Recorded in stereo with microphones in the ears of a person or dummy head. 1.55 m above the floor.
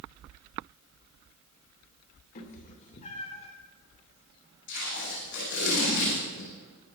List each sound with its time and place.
2.4 s a cat meowing: 45° left (ahead or behind), 2.5 m; by 3.5 s 30° left (ahead or behind), 2 m
4.7 s tape being pulled: 60° left (ahead or behind), 8.5 m